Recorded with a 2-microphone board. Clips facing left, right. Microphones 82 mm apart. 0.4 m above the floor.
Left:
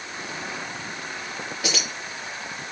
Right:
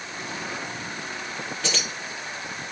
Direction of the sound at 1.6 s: 10° left (ahead or behind).